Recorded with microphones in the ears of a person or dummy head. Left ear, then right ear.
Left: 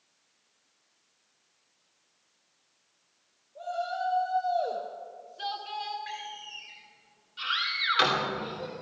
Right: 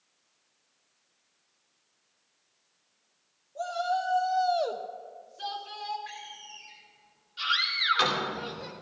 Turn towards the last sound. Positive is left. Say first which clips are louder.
# right 2 dB
turn(degrees=-10)  # may be behind; listen again after turning